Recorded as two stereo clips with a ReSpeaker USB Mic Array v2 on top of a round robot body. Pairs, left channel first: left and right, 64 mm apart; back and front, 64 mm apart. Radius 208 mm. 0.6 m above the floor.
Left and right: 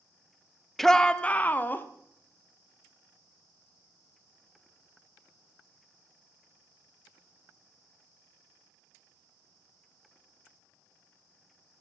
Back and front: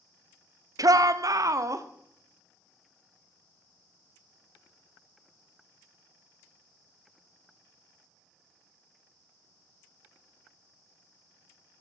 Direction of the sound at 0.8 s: 5° left.